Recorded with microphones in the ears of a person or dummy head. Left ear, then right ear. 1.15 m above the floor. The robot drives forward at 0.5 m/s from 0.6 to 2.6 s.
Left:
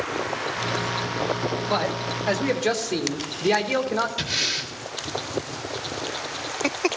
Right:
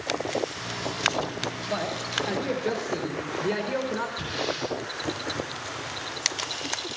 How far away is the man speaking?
About 1.3 m.